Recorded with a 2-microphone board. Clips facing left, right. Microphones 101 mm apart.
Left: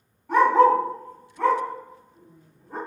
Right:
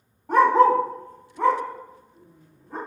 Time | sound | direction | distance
0.3 | a dog barking | 40° right (ahead or behind) | 0.9 m